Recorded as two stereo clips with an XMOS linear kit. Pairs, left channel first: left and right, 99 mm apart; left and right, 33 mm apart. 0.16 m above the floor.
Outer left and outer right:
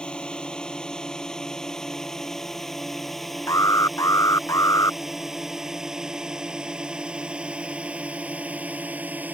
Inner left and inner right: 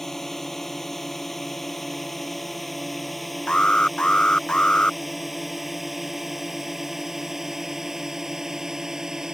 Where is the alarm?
30° left (ahead or behind).